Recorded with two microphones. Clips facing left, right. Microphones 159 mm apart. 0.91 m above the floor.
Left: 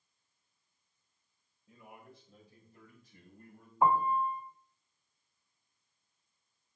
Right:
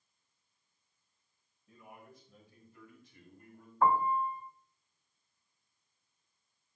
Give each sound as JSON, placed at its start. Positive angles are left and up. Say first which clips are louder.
{"t": 1.7, "sound": "a man speaking", "louder": "even", "side_deg": 25, "distance_m": 4.0}
{"t": 3.8, "sound": "a piano", "louder": "left 1 dB", "side_deg": 15, "distance_m": 0.8}